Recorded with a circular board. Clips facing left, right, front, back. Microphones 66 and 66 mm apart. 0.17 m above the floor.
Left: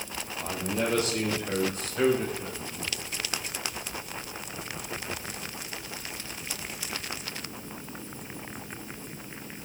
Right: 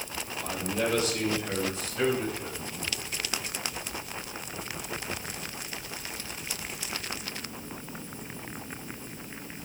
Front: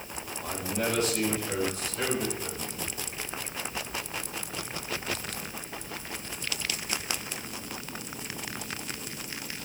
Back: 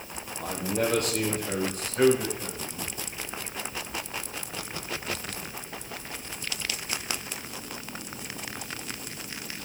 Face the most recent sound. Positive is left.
turn(degrees=130)